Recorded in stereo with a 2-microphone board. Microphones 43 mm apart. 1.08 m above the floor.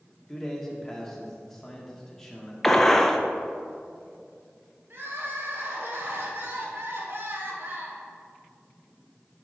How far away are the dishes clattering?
I don't hear dishes clattering.